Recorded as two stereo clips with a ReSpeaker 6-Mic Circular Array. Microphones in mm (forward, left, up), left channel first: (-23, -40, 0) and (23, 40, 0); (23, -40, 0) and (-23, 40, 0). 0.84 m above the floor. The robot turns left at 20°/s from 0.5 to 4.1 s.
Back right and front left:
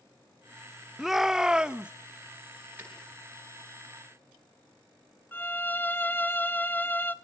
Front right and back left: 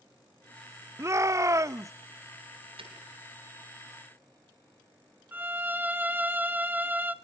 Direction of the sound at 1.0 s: 145° left.